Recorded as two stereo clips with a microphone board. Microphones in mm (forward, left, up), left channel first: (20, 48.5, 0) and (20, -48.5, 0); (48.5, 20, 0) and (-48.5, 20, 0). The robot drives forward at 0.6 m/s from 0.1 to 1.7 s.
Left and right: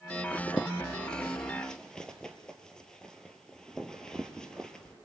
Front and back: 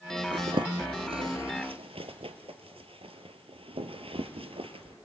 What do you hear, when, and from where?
0.3 s a zipper: 160° left, 0.6 m; by 4.9 s 175° left, 1.4 m